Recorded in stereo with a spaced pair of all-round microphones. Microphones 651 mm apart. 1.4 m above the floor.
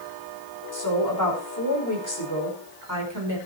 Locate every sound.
0.7 s a woman speaking: 30° left (ahead or behind), 5 m